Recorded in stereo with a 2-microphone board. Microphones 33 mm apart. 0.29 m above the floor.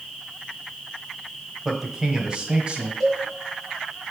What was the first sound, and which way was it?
A man speaking, 5° right (ahead or behind).